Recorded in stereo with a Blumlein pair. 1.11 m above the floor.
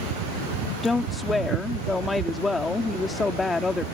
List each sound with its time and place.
0.8 s a woman speaking: 10° left